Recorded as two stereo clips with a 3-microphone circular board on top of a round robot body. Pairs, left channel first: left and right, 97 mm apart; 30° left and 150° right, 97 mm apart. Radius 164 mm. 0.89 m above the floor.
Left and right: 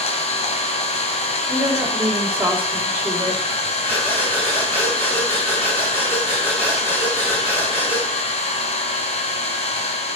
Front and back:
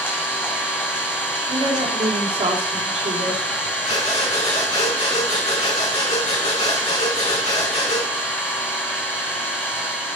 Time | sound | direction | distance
0.0 | an engine running | 100° left | 2 m
1.5 | a woman speaking | 165° right | 3.5 m
3.8 | breathing | 25° left | 5.5 m